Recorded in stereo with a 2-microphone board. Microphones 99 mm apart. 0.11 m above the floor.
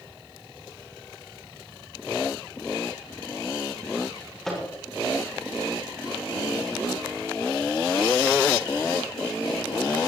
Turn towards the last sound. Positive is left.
turn(degrees=0)  # may be behind; listen again after turning